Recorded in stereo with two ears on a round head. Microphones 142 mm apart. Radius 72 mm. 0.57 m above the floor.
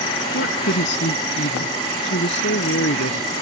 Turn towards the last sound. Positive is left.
turn(degrees=85)